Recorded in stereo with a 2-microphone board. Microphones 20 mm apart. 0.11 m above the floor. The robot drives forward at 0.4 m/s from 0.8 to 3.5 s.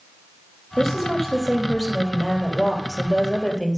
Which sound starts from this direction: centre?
A woman speaking, at 0.8 s.